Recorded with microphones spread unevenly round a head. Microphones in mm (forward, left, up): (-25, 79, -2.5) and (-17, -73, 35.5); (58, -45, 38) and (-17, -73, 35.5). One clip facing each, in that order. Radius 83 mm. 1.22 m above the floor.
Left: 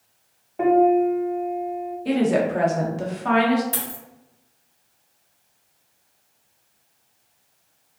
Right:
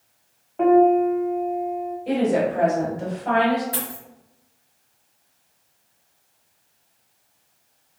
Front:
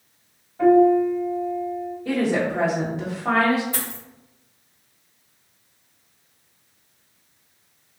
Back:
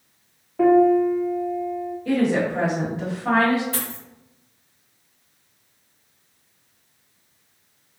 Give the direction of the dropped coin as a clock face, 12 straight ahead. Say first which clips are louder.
Right 1 dB, back 1 dB; 7 o'clock.